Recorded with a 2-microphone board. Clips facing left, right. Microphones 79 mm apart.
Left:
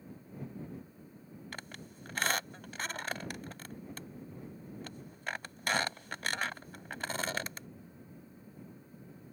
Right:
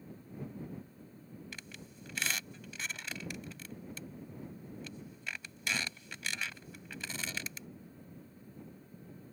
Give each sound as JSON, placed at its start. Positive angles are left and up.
{"t": 1.5, "sound": "a squeak", "side_deg": 50}